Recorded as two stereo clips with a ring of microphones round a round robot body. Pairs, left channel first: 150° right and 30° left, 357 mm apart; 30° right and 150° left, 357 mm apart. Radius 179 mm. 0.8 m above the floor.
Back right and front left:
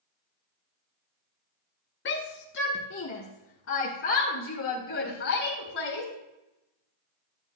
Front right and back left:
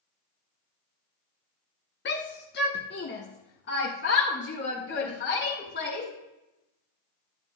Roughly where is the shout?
Right.